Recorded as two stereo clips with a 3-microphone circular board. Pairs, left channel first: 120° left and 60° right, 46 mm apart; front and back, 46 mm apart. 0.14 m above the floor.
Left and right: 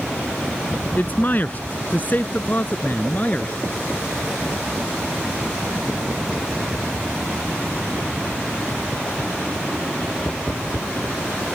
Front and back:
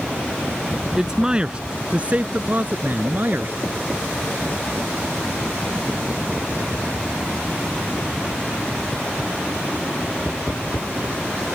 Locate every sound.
1.0 s a man speaking: 110° left; by 3.5 s 165° left